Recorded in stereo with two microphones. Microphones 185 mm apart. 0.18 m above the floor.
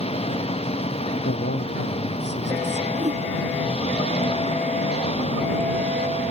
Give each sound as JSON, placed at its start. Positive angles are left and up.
{"t": 0.0, "sound": "an engine running", "side_deg": 30}
{"t": 1.2, "sound": "a man speaking", "side_deg": 70}
{"t": 2.9, "sound": "a whoosh", "side_deg": -45}